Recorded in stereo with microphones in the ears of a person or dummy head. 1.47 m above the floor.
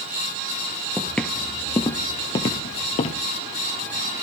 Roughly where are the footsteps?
Centre.